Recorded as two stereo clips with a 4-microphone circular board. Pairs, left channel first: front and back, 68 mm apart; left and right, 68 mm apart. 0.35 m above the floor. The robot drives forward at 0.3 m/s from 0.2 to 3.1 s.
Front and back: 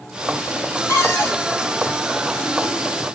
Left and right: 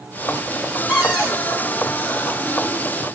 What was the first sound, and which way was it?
A cupboard door, 10° right.